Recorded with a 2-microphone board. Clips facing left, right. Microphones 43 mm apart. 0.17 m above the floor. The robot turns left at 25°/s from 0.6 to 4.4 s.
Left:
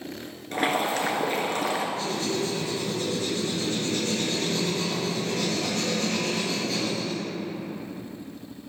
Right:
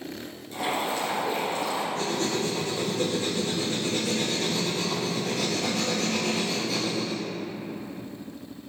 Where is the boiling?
105° left, 2.5 m; by 1.9 s 75° left, 2.5 m.